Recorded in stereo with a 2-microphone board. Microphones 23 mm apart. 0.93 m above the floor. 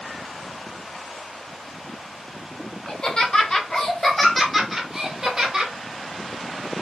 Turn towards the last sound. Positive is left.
turn(degrees=-35)  # may be behind; listen again after turning